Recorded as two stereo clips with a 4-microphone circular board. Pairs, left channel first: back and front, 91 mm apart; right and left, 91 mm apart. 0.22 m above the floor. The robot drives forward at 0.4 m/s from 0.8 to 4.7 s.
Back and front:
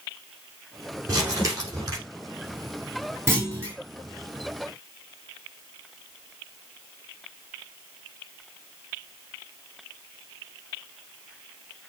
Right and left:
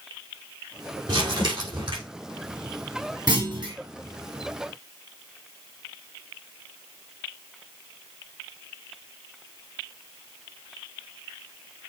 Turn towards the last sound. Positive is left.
turn(degrees=70)